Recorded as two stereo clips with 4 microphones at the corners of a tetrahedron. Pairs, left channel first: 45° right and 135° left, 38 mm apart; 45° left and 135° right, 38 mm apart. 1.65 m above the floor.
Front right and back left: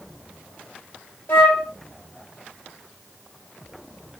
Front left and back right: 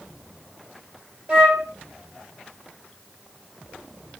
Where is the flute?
70° right, 4 m.